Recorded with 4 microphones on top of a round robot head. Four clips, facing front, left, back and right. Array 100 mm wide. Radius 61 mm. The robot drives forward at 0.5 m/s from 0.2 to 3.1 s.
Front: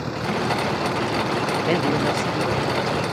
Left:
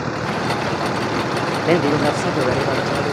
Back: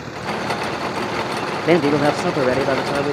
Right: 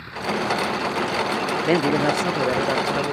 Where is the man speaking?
160° left; by 3.1 s 170° left.